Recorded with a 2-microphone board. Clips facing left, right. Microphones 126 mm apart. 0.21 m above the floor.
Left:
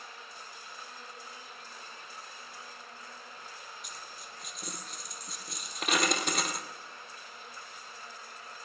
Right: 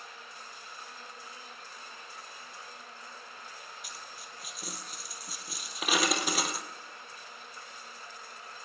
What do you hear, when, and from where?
3.8 s a dropped coin: 5° right (ahead or behind), 1.8 m